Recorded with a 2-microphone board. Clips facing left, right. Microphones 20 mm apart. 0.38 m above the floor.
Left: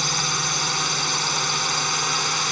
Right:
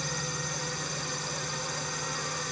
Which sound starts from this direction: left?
A drone, at 0.0 s.